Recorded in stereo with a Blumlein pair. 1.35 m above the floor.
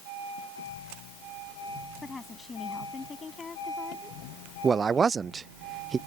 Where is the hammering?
I don't hear hammering.